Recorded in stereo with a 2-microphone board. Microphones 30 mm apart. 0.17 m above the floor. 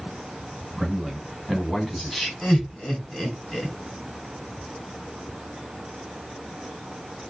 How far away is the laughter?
About 1.9 m.